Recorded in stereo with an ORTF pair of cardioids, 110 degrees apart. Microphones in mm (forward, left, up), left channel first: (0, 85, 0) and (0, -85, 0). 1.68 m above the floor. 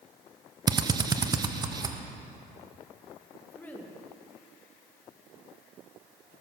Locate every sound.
0.7 s a drill: 25° right, 0.9 m
3.5 s a woman speaking: 10° left, 1.9 m